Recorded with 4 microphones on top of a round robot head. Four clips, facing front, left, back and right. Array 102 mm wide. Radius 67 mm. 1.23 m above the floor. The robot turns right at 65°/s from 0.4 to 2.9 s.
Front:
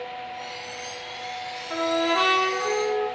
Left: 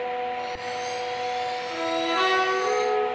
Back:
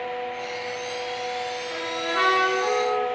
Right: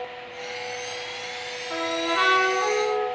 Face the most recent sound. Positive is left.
turn(degrees=55)